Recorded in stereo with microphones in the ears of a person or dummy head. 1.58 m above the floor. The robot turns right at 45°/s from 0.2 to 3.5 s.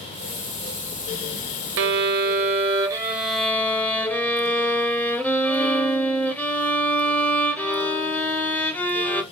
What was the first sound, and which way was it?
A violin, 70° right.